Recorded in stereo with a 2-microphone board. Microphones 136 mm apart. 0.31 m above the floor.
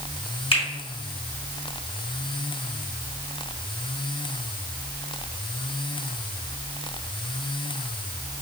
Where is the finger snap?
50° left (ahead or behind), 1.8 m.